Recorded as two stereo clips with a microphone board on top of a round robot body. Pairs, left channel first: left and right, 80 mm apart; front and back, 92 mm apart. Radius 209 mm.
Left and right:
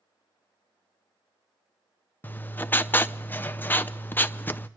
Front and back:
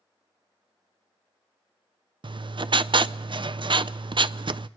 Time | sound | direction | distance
2.2 | writing | 155° left | 0.5 m